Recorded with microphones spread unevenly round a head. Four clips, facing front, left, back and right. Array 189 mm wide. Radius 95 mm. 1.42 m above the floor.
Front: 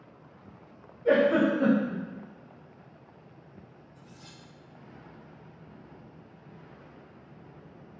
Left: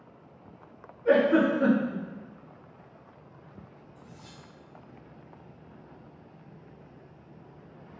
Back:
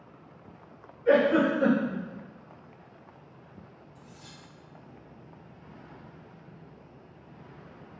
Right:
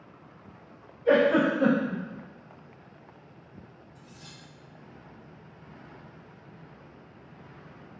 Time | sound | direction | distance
1.1 | a giggle | 5° left | 1.5 m
4.0 | cutlery clinking | 130° right | 1.5 m